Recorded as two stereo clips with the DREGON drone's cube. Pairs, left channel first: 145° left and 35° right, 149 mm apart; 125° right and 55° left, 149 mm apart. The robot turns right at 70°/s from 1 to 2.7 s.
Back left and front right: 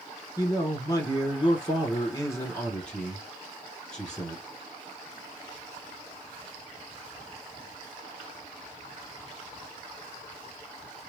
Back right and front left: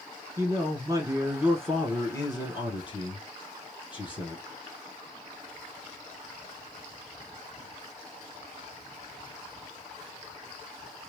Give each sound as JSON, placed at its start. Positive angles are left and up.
{"t": 0.4, "sound": "a man speaking", "azimuth_deg": 105, "distance_m": 1.4}